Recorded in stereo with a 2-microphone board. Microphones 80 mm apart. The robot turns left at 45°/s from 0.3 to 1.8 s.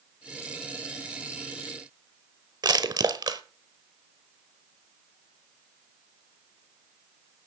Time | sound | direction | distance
2.6 | crushing | 60° right (ahead or behind) | 1.1 m